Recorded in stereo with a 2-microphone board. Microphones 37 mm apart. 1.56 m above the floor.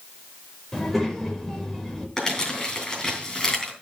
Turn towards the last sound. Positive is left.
turn(degrees=15)  # may be behind; listen again after turning